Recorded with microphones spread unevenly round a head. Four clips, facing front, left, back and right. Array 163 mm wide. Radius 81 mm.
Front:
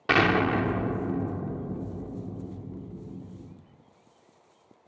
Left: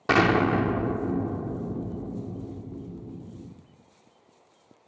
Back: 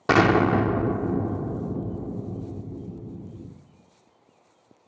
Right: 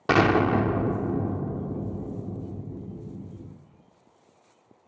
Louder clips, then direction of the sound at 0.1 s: Right 1 dB, back 4 dB; 160° right.